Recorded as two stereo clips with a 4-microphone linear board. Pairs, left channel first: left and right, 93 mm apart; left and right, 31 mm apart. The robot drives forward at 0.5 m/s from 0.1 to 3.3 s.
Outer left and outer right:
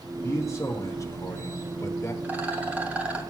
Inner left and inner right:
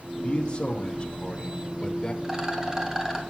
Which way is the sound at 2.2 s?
20° right (ahead or behind).